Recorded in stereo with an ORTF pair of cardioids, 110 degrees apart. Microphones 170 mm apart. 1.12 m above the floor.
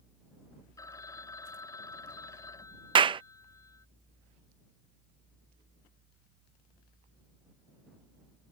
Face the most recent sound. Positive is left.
turn(degrees=-30)